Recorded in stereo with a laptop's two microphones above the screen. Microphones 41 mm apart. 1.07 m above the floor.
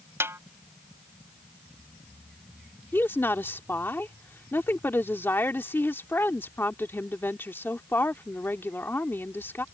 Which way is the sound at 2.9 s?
60° left (ahead or behind).